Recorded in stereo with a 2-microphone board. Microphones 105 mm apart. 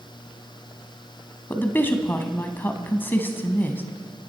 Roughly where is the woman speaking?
Centre.